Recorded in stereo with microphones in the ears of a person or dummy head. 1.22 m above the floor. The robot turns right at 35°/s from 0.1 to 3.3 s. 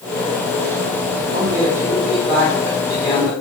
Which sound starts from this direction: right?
A man speaking, at 1.3 s.